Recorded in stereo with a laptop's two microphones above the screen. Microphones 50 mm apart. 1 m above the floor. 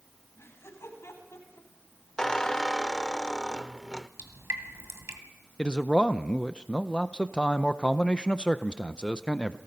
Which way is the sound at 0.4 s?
65° left (ahead or behind).